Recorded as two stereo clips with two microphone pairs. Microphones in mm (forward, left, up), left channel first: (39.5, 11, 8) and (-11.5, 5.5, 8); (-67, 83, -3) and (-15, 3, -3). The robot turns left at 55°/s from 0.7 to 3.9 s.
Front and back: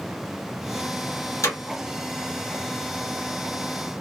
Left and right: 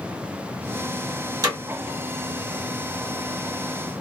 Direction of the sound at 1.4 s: 5° right.